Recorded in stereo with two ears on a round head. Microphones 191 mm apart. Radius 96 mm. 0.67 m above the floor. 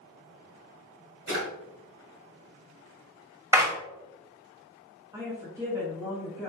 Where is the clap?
15° right (ahead or behind), 0.9 m.